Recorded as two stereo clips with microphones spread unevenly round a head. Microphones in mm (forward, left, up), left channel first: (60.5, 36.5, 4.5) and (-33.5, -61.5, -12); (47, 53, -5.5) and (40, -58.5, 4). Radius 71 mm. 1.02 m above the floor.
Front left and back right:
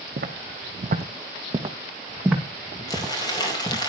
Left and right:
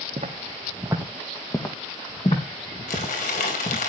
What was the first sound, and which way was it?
Footsteps, 125° right.